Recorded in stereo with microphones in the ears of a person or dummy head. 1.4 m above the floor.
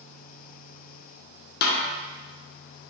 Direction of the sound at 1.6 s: 45° left (ahead or behind).